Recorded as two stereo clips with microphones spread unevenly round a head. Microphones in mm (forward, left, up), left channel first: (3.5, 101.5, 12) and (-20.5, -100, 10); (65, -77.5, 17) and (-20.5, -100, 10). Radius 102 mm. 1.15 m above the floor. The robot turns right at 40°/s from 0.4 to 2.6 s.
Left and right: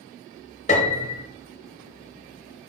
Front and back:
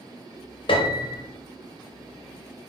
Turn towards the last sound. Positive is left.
turn(degrees=105)